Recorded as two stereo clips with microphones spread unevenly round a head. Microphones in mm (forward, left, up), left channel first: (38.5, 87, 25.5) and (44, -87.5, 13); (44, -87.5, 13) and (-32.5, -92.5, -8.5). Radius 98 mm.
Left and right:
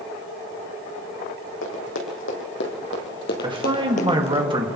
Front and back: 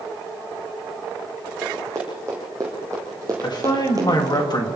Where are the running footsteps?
105° left, 4.5 m; by 4.4 s 135° left, 1.7 m.